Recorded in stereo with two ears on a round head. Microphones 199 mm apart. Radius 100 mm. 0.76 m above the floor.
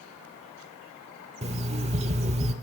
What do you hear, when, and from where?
1.4 s an alarm clock: 30° right (ahead or behind), 0.9 m